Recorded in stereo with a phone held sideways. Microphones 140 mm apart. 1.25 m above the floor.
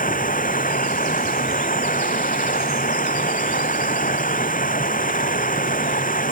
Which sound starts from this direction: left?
Running water, at 0.0 s.